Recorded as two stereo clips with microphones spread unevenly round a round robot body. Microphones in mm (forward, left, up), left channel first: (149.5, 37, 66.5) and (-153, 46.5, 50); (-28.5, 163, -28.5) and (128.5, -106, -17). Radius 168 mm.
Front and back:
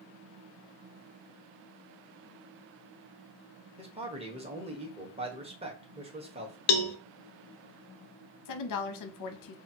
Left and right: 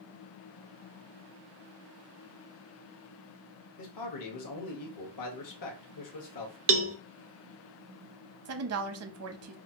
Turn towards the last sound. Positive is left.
turn(degrees=-20)